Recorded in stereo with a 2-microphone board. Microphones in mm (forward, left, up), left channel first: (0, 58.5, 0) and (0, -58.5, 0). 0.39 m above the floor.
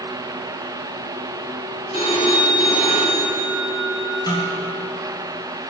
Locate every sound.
1.9 s a phone ringing: 60° left (ahead or behind), 1.7 m
4.3 s a snare drum: 35° left (ahead or behind), 2.5 m